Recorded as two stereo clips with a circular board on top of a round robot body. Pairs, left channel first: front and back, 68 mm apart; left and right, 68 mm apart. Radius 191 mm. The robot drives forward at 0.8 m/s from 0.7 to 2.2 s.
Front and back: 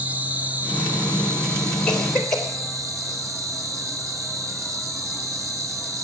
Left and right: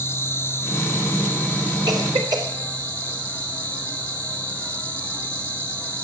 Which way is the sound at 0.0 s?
125° left.